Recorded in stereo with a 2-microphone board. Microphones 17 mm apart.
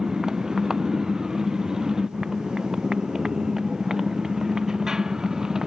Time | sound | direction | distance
0.0 | a motorcycle | 40° right (ahead or behind) | ?